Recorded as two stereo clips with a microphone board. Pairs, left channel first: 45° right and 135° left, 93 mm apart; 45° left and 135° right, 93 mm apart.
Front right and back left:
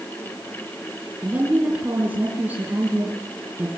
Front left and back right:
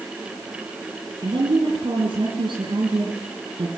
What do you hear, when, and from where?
1.2 s a woman speaking: 155° right, 3.5 m